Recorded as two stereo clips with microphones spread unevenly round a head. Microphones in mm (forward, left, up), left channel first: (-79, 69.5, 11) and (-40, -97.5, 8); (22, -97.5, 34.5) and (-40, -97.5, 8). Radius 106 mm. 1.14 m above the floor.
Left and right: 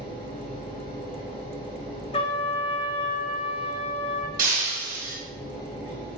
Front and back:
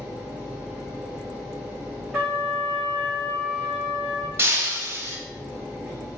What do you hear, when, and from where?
0.0 s a machine running: 105° right, 1.7 m
2.1 s a trumpet: 65° left, 0.6 m
4.4 s breaking glass: 115° right, 1.1 m